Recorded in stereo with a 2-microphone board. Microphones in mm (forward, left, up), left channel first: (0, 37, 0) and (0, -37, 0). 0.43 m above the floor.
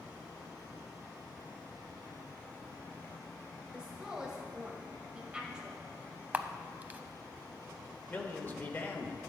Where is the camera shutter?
20° right (ahead or behind), 0.5 m.